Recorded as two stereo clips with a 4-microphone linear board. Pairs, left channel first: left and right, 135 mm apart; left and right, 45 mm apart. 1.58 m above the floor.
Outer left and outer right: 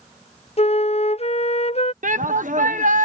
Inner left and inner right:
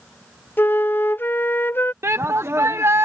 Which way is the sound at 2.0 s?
75° right (ahead or behind).